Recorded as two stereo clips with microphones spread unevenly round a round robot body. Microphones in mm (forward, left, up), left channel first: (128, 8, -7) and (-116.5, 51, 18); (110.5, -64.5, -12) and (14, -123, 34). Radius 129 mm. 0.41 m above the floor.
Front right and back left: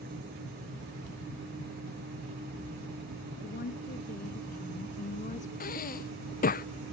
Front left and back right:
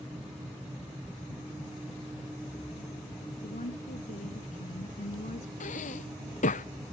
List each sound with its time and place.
3.4 s a woman speaking: 40° left; by 5.5 s 50° left
5.6 s breathing: 45° left